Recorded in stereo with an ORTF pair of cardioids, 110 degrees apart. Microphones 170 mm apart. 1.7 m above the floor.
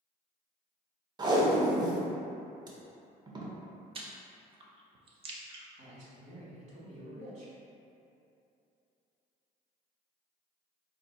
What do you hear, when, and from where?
1.2 s tape being pulled: 25° right, 0.6 m
4.0 s chewing: 35° right, 0.5 m
5.8 s a man speaking: 45° right, 1.2 m